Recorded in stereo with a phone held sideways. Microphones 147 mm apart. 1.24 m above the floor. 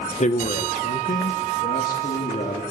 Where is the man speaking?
50° left (ahead or behind), 1.0 m; by 2.6 s 75° left (ahead or behind), 3 m.